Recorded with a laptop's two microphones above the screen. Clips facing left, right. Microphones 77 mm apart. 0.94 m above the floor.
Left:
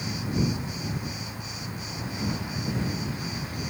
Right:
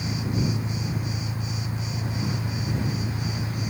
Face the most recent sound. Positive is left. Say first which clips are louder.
# right 1 dB
turn(degrees=-75)  # may be behind; listen again after turning